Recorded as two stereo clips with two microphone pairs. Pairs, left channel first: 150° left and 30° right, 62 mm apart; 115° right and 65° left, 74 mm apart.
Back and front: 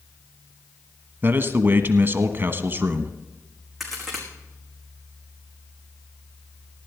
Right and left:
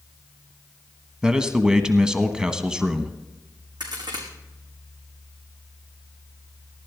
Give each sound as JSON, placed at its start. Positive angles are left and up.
{"t": 1.2, "sound": "a man speaking", "azimuth_deg": -5, "distance_m": 1.2}
{"t": 3.8, "sound": "a crack", "azimuth_deg": 60, "distance_m": 4.5}